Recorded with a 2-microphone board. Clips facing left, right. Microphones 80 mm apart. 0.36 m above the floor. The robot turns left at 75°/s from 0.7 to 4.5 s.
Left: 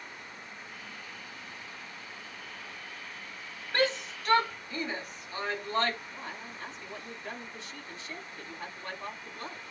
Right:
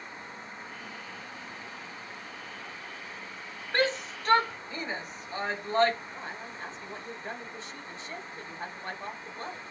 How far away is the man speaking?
About 1.7 m.